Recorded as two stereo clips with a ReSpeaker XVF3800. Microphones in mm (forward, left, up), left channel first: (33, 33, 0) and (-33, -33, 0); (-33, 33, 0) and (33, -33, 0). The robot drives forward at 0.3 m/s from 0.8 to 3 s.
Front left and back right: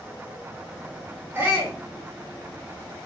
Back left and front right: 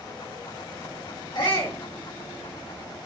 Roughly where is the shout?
Behind.